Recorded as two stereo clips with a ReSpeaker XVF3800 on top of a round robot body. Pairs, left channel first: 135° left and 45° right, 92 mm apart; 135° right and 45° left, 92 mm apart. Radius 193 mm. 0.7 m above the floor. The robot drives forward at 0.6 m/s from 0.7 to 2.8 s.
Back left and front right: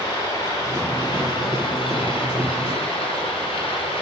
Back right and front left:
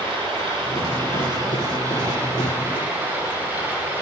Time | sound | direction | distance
0.0 | running water | 75° left | 1.7 m